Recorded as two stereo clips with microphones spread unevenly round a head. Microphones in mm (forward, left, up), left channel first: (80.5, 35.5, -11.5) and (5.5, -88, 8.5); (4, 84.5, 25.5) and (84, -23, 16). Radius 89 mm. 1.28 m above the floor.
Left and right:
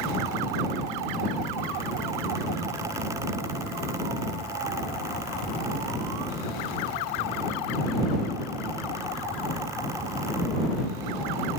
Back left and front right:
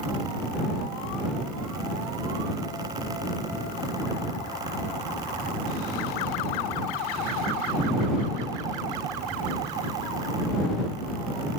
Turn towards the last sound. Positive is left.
No sound to turn to.